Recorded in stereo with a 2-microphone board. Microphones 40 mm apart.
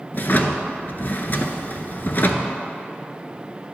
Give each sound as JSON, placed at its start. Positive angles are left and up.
{"t": 0.1, "sound": "a drawer", "side_deg": 55, "distance_m": 0.5}